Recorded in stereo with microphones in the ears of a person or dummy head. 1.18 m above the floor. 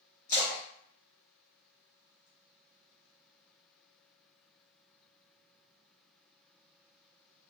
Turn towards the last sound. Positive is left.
turn(degrees=30)  # may be behind; listen again after turning